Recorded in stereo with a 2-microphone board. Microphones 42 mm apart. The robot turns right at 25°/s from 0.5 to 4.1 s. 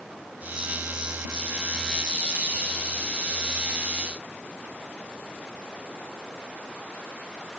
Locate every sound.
Only background noise.